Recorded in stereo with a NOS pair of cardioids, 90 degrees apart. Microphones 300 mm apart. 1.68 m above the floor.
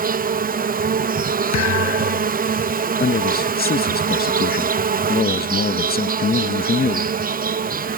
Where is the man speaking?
30° left.